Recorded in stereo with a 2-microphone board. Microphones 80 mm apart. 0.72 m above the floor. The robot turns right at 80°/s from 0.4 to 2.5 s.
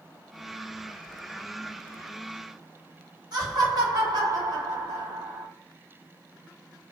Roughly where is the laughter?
Right.